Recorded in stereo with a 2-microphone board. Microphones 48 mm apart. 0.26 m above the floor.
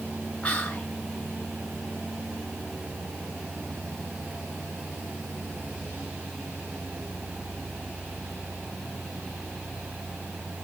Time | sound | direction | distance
0.4 | whispering | 25° left (ahead or behind) | 1.0 m